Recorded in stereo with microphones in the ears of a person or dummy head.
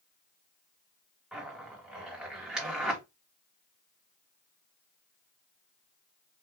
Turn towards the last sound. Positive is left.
turn(degrees=-5)  # may be behind; listen again after turning